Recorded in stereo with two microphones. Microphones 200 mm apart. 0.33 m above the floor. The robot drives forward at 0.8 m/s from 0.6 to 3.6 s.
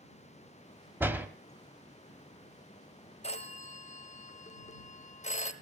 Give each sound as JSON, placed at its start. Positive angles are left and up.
{"t": 1.0, "sound": "a door slam", "side_deg": -10, "distance_m": 1.0}
{"t": 3.2, "sound": "a phone ringing", "side_deg": 30, "distance_m": 1.2}